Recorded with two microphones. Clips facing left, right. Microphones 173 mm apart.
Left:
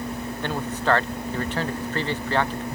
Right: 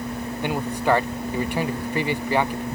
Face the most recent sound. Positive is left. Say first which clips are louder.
# right 2 dB
turn(degrees=-10)  # may be behind; listen again after turning